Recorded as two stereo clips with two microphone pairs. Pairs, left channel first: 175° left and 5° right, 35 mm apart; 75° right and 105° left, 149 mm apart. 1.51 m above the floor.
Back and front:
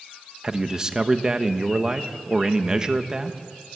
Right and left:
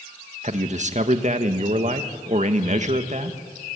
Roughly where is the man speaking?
Left.